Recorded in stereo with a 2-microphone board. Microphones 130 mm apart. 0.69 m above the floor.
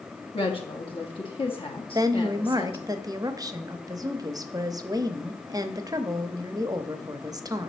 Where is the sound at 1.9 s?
30° right (ahead or behind), 0.6 m.